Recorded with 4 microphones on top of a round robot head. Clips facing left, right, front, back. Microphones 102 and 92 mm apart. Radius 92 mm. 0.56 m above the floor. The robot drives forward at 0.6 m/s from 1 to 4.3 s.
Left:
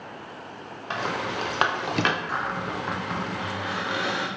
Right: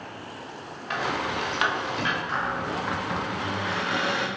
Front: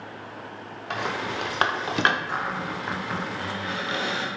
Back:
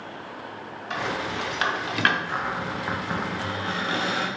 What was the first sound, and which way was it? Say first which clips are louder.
A rattle: right 1 dB, even; 30° left.